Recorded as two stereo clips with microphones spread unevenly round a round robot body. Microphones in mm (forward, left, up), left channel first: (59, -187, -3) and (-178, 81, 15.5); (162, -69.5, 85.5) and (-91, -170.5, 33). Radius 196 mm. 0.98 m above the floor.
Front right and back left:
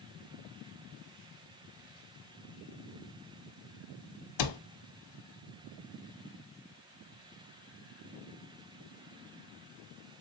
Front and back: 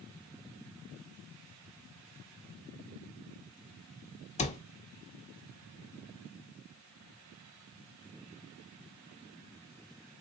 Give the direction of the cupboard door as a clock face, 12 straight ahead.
1 o'clock.